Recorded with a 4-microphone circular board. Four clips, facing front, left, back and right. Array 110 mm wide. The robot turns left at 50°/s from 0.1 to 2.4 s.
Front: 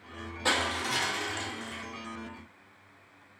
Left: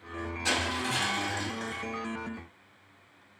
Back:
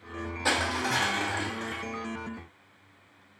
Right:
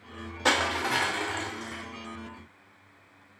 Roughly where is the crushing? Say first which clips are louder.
Right 6 dB, back 2 dB; right.